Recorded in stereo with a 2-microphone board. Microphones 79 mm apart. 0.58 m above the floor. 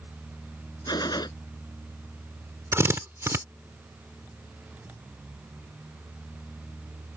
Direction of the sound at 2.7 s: 35° right (ahead or behind).